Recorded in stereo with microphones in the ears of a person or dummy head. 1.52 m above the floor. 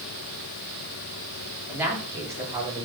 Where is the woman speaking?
10° right (ahead or behind), 4 m; by 2.9 s 20° right (ahead or behind), 4.5 m.